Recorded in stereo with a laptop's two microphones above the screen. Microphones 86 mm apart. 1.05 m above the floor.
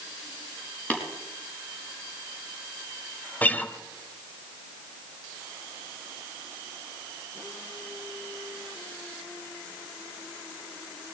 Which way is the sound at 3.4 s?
20° left (ahead or behind).